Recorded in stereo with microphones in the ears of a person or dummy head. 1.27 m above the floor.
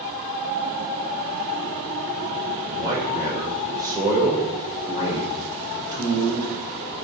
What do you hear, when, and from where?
2.6 s a man speaking: 20° right (ahead or behind), 5.5 m